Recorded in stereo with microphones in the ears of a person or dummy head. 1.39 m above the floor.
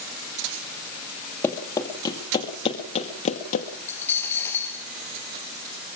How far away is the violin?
I don't hear a violin.